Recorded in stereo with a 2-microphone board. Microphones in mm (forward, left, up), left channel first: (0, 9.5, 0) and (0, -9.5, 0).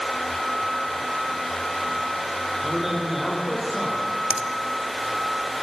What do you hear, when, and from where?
2.6 s a man speaking: 15° right (ahead or behind), 9.5 m
4.3 s a finger snap: 35° right (ahead or behind), 1.0 m